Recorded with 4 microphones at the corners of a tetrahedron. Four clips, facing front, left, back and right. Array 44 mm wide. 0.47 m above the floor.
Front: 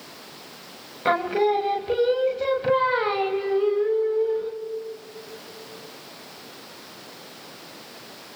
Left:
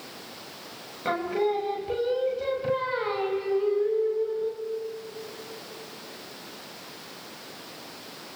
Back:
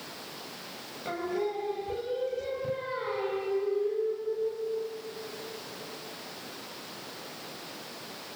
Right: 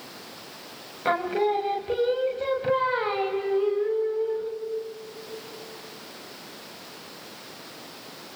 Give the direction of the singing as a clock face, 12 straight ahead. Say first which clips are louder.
Right 2 dB, front 11 dB; 1 o'clock.